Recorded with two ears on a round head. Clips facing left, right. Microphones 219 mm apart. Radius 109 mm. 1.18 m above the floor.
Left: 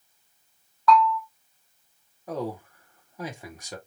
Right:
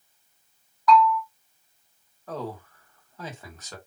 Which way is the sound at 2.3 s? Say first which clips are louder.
Left 3 dB; 10° left (ahead or behind).